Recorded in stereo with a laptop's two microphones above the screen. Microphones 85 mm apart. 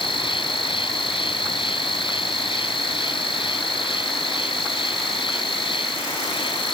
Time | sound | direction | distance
0.0 | an insect | 90° left | ?